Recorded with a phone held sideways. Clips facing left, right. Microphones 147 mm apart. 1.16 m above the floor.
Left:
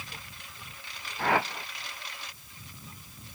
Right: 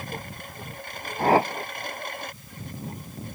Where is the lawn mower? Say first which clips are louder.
Right 11 dB; 55° right (ahead or behind).